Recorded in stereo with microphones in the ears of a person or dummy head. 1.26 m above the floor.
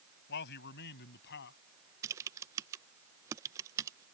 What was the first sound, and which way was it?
A man speaking, 60° left (ahead or behind).